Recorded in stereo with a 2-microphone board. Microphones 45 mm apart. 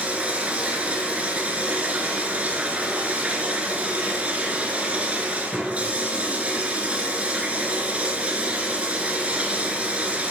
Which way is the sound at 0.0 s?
30° right (ahead or behind).